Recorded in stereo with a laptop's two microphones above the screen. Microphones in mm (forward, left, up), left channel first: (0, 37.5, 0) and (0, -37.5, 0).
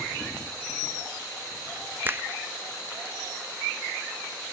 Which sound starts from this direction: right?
A finger snap, at 2.0 s.